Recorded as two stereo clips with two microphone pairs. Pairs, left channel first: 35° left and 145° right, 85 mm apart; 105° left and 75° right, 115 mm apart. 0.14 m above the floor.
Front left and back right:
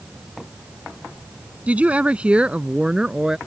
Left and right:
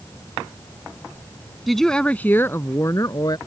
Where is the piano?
I don't hear a piano.